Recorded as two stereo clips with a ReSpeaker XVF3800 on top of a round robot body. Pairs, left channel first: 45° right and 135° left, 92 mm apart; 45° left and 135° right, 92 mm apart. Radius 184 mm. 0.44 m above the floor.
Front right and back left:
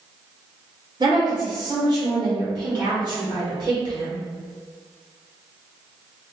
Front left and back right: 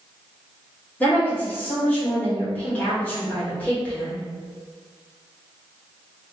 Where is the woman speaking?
115° left, 1.8 m.